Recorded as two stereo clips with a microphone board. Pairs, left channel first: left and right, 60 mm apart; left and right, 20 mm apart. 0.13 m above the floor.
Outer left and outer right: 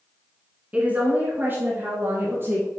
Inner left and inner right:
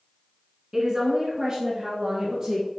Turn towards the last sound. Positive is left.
turn(degrees=-35)  # may be behind; listen again after turning